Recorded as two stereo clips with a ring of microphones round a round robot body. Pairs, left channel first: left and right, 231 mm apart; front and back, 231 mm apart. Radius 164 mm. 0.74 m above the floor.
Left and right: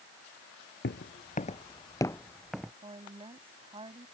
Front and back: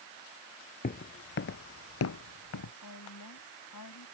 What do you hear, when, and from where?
0.8 s footsteps: 50° left; by 2.7 s 5° right
2.8 s a woman speaking: 25° right